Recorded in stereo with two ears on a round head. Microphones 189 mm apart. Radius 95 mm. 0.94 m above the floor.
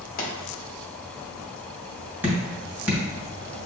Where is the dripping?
10° right (ahead or behind), 1.5 m.